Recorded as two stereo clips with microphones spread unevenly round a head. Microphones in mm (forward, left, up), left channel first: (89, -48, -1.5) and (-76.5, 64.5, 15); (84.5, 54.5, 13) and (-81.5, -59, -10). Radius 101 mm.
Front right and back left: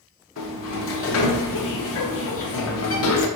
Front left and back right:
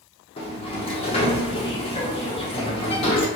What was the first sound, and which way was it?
A sliding door, 30° right.